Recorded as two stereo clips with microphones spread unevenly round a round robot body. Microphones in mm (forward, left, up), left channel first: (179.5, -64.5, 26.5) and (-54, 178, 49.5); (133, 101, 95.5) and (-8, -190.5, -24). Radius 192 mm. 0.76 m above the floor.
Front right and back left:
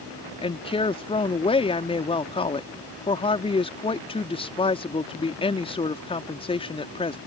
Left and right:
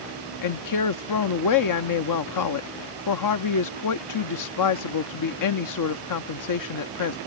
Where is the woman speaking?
25° left.